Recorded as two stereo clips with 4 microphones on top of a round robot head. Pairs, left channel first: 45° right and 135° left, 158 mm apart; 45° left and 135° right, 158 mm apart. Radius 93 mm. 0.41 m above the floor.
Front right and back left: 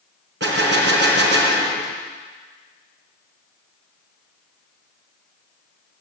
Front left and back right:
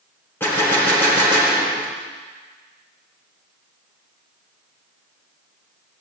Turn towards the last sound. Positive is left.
turn(degrees=125)